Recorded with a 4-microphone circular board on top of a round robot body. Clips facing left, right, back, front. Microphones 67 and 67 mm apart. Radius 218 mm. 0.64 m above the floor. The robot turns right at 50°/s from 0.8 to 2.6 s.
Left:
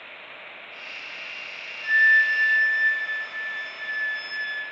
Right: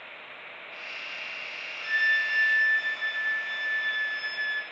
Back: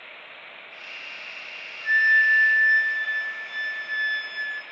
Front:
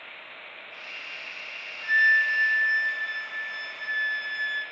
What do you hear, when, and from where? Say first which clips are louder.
1.8 s a flute: left 7 dB, back 2 dB; 95° right, 0.7 m; by 4.6 s 60° right, 0.7 m